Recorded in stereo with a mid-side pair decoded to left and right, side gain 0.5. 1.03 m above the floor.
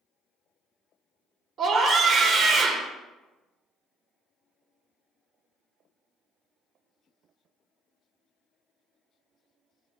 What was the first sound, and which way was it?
A scream, 55° right.